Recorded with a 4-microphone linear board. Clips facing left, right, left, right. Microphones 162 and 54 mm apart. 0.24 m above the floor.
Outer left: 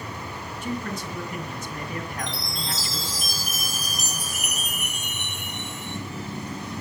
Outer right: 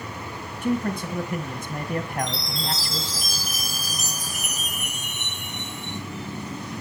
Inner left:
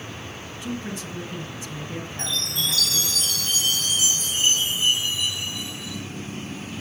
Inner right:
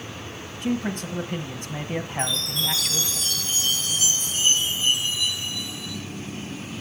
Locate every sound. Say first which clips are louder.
0.6 s a man speaking: outer right 7 dB, inner right 6 dB; 50° right (ahead or behind), 1.7 m
2.2 s a chime: outer right 4 dB, inner right 2 dB; 75° left (ahead or behind), 5 m